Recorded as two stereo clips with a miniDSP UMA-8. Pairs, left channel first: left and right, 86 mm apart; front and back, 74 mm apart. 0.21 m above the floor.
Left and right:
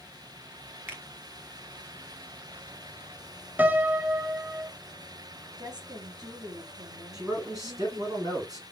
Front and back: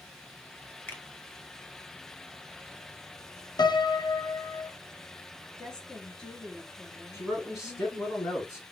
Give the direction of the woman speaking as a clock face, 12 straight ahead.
3 o'clock.